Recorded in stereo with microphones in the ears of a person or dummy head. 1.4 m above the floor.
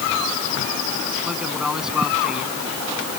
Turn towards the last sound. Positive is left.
turn(degrees=-5)  # may be behind; listen again after turning